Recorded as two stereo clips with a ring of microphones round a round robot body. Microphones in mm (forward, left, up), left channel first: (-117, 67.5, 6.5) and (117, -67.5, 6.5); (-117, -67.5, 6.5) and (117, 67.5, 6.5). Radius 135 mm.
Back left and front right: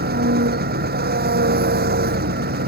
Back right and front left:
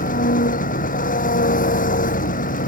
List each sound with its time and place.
0.0 s an engine running: 90° right